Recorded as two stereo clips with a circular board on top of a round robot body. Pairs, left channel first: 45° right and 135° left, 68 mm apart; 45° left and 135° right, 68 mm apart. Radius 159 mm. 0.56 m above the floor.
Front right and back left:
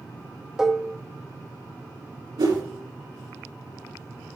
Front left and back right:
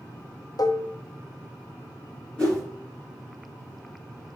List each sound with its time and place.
0.6 s dishes clattering: 55° left, 0.8 m
2.4 s a whoosh: 120° left, 3 m